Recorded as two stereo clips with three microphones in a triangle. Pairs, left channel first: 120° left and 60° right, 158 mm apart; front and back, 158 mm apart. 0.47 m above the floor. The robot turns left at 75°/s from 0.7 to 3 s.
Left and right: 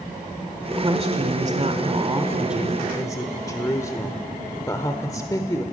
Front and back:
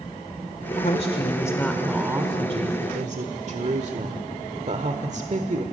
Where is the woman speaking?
5° right, 1.4 m; by 5.6 s straight behind, 1.4 m.